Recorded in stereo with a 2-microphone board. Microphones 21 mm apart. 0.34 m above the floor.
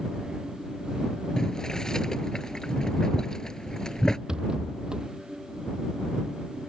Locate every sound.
1.4 s boiling: 35° left (ahead or behind)
4.3 s a rattle: 40° right (ahead or behind)